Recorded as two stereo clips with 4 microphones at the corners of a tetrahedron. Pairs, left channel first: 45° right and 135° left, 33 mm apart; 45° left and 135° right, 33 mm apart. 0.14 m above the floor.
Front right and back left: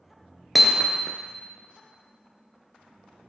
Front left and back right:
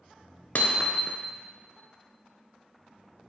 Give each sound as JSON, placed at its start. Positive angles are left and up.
{"t": 0.6, "sound": "hammering", "azimuth_deg": 45, "distance_m": 0.7}